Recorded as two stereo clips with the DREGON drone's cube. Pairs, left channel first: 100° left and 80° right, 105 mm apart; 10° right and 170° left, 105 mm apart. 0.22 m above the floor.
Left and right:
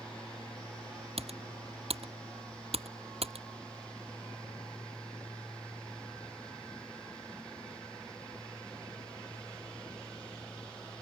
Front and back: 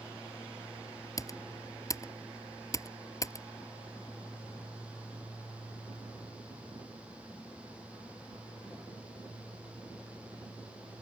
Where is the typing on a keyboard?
70° right.